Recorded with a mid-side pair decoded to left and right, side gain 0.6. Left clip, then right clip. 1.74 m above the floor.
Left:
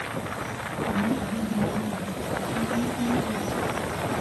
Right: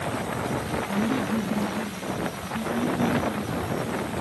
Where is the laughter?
35° right, 2.5 m; by 3.5 s 15° left, 3 m.